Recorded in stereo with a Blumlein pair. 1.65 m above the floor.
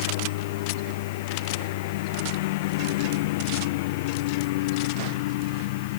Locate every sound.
0.0 s a lawn mower: 50° left